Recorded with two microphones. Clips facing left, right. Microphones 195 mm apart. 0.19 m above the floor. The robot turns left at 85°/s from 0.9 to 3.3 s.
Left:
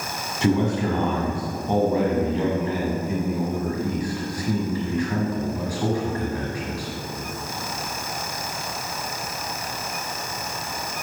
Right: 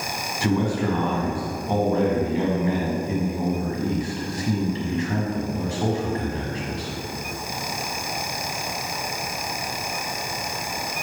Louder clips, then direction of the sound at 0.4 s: Left 1 dB; 25° left (ahead or behind).